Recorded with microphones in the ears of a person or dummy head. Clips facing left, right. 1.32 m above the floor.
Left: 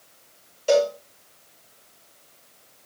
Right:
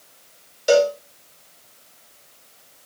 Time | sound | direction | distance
0.7 | a cowbell | 15° right (ahead or behind) | 0.6 m